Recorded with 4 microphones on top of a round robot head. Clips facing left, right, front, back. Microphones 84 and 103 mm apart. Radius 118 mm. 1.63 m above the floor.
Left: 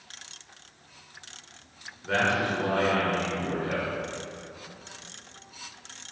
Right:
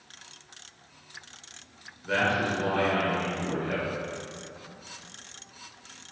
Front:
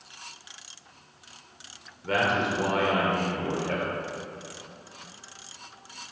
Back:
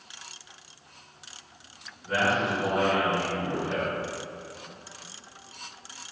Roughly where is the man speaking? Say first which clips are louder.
Left 1 dB, even; ahead.